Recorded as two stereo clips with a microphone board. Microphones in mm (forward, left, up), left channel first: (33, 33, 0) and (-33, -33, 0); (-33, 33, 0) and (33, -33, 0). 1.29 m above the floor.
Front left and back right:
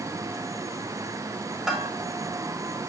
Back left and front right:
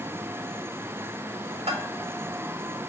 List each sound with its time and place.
1.7 s a bell: 45° right, 3 m